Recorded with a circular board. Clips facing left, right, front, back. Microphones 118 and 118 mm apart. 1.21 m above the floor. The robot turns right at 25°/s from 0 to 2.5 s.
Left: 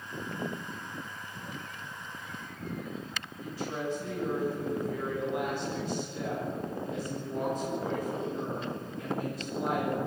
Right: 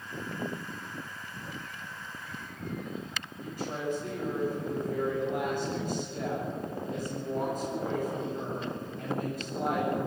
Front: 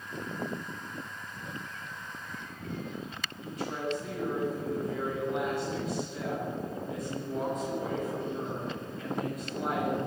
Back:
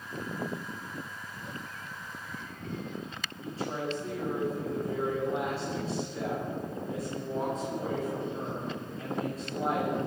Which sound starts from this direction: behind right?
A woman speaking, at 3.4 s.